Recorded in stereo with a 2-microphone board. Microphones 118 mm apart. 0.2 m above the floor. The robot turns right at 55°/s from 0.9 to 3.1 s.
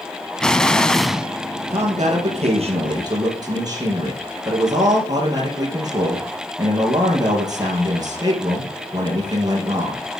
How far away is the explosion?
About 0.5 m.